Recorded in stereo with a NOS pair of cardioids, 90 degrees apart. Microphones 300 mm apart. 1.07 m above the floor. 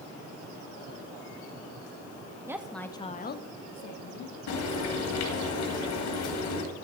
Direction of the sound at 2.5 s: 10° right.